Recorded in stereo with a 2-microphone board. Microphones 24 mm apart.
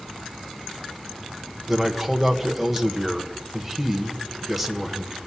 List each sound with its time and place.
1.7 s a man speaking: 5° right (ahead or behind), 1.1 m